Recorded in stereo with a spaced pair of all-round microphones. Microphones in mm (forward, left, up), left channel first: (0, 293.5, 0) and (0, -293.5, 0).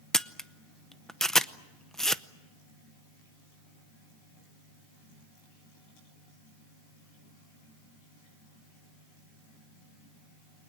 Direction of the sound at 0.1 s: Centre (ahead or behind).